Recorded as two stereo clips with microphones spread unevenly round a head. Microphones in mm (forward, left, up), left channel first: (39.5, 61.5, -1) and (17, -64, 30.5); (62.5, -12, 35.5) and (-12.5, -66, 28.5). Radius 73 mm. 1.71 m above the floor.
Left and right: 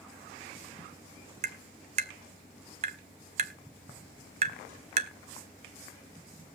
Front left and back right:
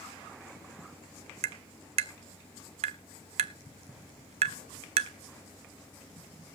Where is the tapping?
145° right, 0.7 m.